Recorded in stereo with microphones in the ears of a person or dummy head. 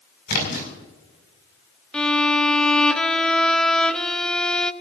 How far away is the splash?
About 5.5 m.